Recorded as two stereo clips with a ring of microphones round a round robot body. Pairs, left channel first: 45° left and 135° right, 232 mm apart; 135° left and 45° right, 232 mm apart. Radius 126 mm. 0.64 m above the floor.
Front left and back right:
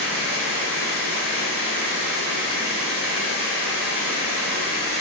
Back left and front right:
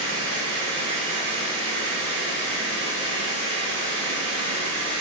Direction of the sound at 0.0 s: 85° right.